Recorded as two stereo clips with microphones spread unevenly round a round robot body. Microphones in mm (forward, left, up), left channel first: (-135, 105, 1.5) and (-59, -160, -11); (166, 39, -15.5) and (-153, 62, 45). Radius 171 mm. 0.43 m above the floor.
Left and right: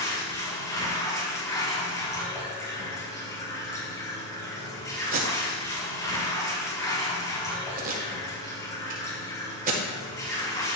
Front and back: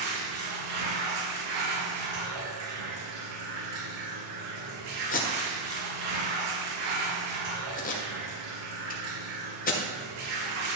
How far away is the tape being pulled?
About 1.3 m.